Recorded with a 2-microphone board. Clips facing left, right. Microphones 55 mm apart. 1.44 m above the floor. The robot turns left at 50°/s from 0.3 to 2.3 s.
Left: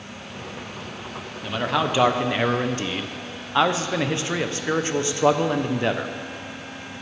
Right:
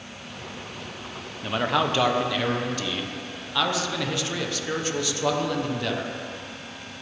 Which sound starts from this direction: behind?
A man speaking, at 1.4 s.